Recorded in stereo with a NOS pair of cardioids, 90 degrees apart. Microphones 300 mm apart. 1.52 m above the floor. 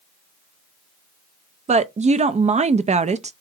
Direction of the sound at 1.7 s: 25° right.